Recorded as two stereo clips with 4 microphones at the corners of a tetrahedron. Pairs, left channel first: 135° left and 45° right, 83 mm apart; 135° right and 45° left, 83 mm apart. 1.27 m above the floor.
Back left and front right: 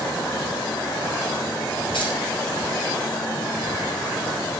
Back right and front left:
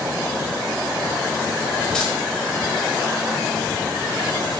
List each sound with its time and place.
1.9 s keys jangling: 140° left, 5 m